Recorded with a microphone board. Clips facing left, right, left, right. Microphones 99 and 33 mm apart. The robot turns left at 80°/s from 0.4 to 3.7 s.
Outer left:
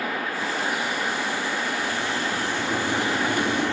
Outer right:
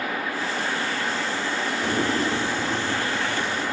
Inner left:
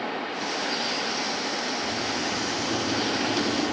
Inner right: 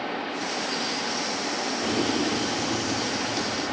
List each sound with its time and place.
1.8 s boiling: 110° right; by 3.8 s 100° left